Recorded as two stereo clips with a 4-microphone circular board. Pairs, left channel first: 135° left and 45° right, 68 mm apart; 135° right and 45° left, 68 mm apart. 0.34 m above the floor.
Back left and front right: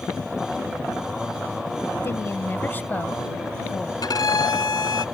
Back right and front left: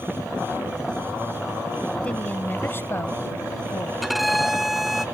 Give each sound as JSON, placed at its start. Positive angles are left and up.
{"t": 2.0, "sound": "a woman speaking", "azimuth_deg": 160}
{"t": 4.0, "sound": "a violin", "azimuth_deg": 135}